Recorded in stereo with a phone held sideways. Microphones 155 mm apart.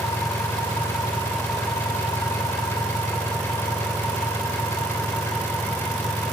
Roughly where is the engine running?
Centre.